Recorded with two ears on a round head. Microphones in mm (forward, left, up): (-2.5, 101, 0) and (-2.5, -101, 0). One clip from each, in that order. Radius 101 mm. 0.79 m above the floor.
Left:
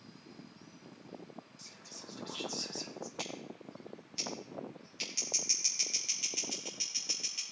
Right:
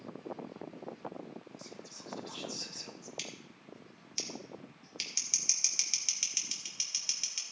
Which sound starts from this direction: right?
Scissors, at 3.2 s.